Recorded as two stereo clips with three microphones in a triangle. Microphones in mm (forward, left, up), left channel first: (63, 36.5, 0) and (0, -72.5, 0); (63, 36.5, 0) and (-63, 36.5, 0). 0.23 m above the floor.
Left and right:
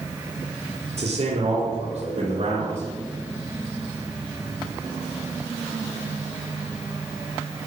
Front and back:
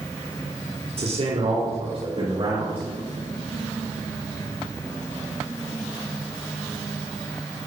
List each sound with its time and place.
1.0 s a man speaking: 150° right, 4.5 m; by 2.8 s 145° right, 7 m